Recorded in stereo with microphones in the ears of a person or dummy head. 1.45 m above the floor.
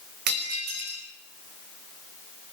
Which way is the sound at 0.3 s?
55° right (ahead or behind).